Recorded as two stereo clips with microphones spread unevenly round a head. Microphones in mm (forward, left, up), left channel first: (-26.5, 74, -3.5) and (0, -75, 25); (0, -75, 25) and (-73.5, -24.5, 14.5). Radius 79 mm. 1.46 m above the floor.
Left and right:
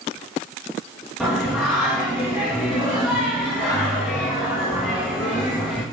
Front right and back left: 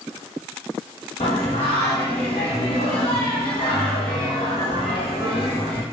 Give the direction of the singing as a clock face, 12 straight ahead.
12 o'clock.